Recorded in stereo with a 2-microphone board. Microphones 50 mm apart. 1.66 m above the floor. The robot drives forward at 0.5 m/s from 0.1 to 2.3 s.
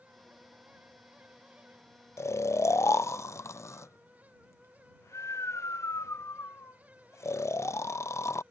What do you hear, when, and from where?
2.2 s snoring: 70° left (ahead or behind); by 8.4 s 80° left